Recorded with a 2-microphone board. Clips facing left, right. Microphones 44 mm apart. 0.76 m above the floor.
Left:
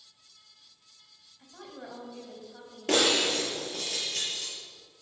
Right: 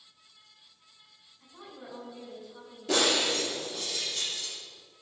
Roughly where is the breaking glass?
Left.